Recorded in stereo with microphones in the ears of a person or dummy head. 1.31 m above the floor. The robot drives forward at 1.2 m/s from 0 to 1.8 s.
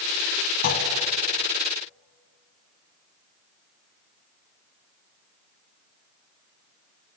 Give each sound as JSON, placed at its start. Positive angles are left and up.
{"t": 0.6, "sound": "a clunk", "side_deg": 55, "distance_m": 1.9}